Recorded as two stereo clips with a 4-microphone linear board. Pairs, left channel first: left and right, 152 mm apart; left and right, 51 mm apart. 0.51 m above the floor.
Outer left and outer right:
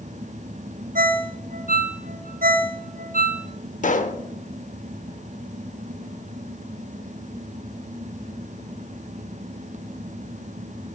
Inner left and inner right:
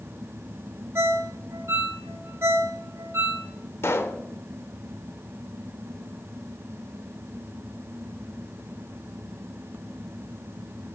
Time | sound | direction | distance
0.9 | a ringtone | 70° right (ahead or behind) | 0.6 m
3.8 | a pop | 65° left (ahead or behind) | 0.5 m